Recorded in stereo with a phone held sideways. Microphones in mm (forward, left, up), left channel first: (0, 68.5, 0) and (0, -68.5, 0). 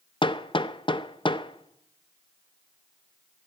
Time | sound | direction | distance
0.2 | hammering | 35° left (ahead or behind) | 0.6 m